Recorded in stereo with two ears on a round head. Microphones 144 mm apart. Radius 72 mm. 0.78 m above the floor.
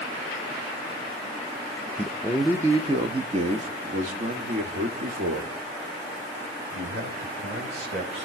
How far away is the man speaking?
About 0.8 m.